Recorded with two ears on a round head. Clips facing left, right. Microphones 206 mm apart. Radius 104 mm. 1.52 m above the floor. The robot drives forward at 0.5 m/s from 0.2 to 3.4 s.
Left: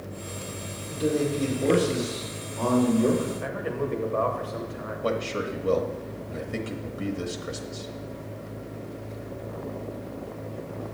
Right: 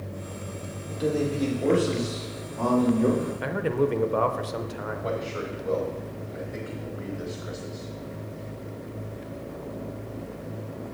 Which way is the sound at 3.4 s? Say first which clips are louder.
Right 5 dB; 55° right (ahead or behind).